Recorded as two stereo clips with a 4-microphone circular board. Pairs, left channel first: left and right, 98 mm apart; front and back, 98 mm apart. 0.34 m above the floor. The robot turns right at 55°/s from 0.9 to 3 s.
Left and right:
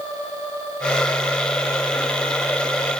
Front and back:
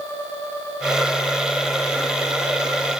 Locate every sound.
Only background noise.